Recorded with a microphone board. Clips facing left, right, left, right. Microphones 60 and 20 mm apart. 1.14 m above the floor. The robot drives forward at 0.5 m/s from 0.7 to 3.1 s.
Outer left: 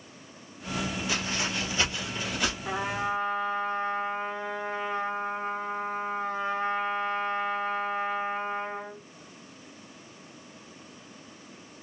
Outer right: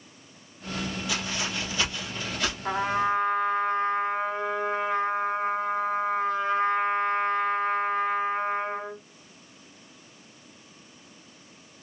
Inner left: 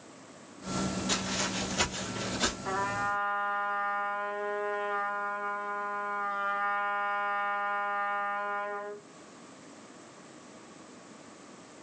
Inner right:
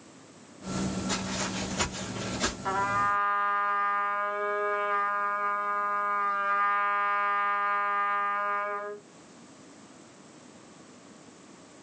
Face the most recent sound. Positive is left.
turn(degrees=-55)  # may be behind; listen again after turning